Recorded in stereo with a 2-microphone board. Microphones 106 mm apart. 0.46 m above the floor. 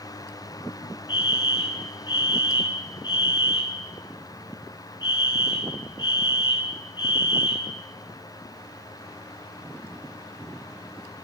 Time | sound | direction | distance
1.1 | a fire alarm | 45° left (ahead or behind) | 3.5 m